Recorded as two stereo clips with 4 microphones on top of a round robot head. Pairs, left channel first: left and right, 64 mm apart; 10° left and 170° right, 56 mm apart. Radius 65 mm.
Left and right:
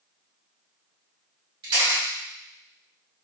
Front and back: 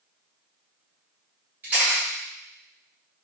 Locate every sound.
1.6 s a camera shutter: 105° right, 2 m